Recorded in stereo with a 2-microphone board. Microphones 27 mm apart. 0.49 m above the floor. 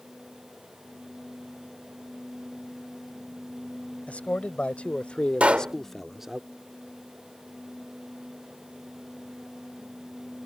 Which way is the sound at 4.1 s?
65° left (ahead or behind).